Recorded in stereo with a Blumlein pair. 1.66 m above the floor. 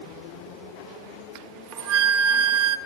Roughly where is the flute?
Ahead right.